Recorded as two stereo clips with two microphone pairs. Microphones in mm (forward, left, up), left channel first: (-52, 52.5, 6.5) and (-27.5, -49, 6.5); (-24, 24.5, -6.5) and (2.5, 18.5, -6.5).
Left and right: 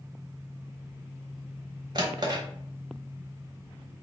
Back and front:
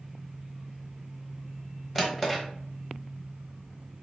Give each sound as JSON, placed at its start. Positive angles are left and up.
{"t": 1.9, "sound": "a drawer", "azimuth_deg": -110, "distance_m": 0.9}